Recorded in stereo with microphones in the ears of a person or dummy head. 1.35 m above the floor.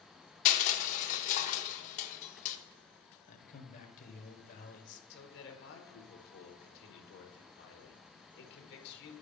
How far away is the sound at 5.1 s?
About 1.2 m.